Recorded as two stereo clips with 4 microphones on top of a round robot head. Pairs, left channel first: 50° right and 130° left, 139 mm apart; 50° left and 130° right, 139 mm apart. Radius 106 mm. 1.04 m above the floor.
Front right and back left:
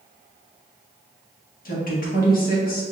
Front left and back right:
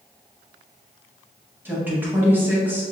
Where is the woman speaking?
55° right, 1.4 m.